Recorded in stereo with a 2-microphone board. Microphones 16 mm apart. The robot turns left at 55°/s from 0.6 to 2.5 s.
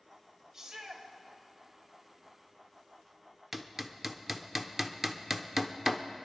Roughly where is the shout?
Right.